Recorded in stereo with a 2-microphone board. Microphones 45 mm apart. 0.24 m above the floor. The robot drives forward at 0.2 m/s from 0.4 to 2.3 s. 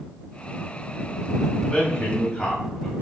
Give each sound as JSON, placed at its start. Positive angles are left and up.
{"t": 1.6, "sound": "a man speaking", "side_deg": 30, "distance_m": 1.0}